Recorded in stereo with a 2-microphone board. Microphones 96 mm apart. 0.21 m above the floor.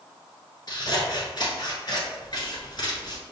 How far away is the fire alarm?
I don't hear a fire alarm.